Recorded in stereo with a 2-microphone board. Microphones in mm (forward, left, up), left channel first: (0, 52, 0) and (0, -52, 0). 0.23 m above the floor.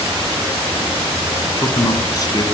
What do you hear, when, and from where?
1.4 s a man speaking: 35° left (ahead or behind), 2 m